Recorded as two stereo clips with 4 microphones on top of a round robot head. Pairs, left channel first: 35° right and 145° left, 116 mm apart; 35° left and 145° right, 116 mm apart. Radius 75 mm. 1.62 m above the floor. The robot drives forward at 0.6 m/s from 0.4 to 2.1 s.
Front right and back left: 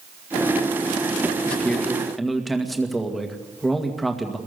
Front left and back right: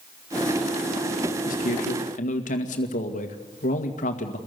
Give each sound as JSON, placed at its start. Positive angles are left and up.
{"t": 1.4, "sound": "a man speaking", "azimuth_deg": 45, "distance_m": 2.5}